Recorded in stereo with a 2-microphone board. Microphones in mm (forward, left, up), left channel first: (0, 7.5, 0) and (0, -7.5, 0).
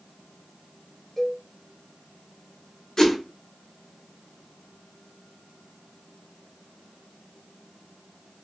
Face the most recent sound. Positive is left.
turn(degrees=40)  # may be behind; listen again after turning